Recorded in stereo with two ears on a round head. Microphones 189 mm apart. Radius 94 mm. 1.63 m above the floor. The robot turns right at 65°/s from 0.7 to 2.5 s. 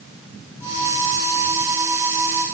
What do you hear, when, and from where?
Only background noise.